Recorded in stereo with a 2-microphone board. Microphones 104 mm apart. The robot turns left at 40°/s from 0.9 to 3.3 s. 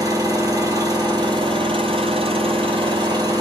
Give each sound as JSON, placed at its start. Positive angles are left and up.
{"t": 0.0, "sound": "an engine running", "azimuth_deg": -40, "distance_m": 1.2}